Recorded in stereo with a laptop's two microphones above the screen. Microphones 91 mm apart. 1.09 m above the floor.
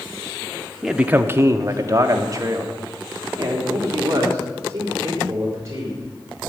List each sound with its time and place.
0.8 s a man speaking: centre (ahead or behind), 0.6 m; by 6.0 s 35° right (ahead or behind), 6 m